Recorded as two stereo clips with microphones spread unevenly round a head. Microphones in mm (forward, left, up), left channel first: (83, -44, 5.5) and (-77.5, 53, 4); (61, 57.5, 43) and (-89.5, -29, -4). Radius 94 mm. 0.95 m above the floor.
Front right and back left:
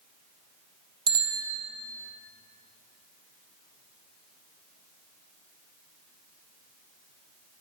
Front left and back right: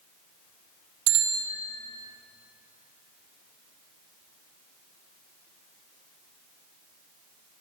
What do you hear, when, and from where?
1.1 s a bicycle bell: 145° right, 3 m